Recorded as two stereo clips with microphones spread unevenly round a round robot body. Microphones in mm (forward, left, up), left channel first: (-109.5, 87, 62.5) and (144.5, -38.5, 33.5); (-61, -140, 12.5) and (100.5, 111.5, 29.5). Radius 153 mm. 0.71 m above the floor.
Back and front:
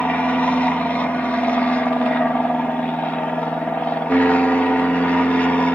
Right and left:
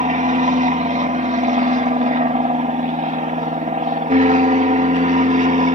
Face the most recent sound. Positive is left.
turn(degrees=60)